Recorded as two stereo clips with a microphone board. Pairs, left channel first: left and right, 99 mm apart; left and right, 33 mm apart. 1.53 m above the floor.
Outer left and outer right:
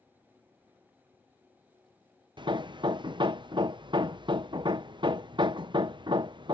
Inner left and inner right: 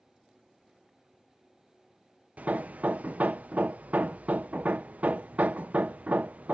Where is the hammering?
50° right (ahead or behind).